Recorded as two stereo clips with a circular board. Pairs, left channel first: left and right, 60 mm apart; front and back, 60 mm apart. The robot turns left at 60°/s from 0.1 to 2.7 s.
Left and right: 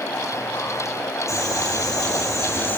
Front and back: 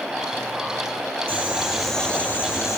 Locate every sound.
1.3 s boiling: 125° left, 8 m; by 2.8 s 40° left, 8 m